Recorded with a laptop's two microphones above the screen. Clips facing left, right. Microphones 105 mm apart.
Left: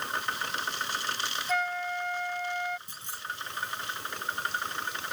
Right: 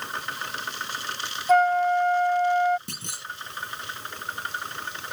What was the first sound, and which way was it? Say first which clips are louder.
A flute: right 13 dB; 50° right (ahead or behind).